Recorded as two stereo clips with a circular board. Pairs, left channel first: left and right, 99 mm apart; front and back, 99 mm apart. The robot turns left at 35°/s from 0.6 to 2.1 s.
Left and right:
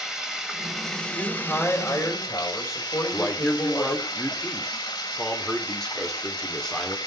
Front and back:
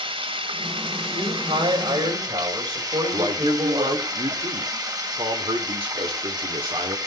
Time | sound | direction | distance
0.0 | running water | 175° right | 1.8 m
1.1 | a man speaking | straight behind | 3.5 m
3.1 | a man speaking | 175° left | 2.5 m